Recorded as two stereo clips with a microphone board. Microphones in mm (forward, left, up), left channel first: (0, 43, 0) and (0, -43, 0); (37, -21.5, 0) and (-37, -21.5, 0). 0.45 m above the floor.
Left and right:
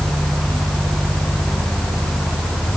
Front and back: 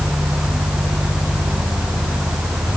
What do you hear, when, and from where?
Only background noise.